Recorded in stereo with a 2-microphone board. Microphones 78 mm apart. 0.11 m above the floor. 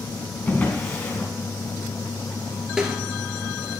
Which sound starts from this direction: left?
A drawer, at 0.5 s.